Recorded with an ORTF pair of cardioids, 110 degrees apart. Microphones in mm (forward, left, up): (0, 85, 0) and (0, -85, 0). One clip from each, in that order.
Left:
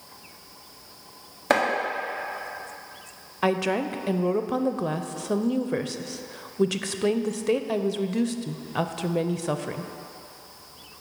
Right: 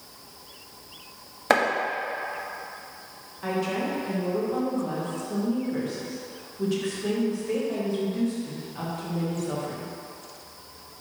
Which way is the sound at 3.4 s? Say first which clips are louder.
Left 4 dB; 70° left.